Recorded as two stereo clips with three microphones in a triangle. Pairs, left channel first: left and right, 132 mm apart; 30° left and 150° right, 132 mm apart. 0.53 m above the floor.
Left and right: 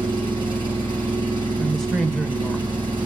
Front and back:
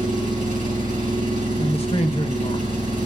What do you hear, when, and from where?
0.0 s an engine running: 140° right, 5 m
1.6 s a woman speaking: 5° left, 2.0 m